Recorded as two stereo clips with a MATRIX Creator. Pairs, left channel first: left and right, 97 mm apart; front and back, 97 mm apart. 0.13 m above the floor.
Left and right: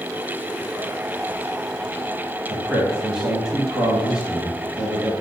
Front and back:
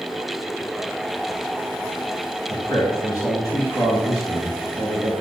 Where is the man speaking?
10° right, 1.3 m.